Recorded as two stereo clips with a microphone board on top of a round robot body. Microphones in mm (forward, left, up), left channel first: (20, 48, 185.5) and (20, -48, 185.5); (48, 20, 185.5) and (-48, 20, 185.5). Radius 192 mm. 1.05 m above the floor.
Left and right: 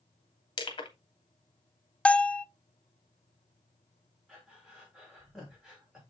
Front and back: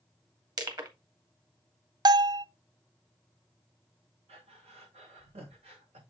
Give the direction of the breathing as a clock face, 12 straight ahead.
6 o'clock.